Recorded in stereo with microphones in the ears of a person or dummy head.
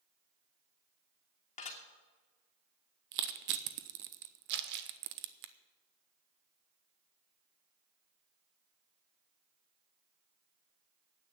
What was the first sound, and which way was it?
Dishes clattering, 35° left (ahead or behind).